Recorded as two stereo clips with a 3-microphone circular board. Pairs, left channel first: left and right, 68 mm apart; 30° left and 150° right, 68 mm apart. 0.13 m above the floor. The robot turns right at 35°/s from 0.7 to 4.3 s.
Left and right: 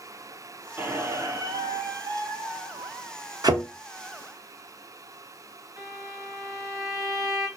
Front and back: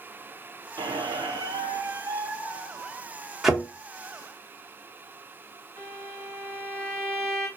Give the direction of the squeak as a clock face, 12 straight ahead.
5 o'clock.